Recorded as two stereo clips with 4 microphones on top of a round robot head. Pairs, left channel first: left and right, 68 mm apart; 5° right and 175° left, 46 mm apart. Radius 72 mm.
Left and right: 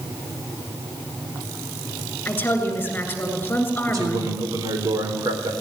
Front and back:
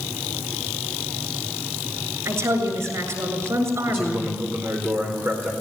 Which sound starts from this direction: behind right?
A man speaking, at 3.9 s.